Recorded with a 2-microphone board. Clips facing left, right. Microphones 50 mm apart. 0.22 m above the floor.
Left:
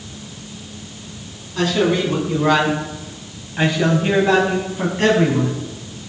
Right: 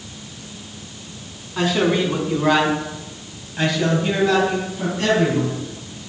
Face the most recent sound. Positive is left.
turn(degrees=40)  # may be behind; listen again after turning